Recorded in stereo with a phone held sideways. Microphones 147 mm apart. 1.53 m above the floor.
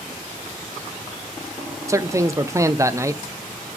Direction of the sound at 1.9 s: 20° right (ahead or behind).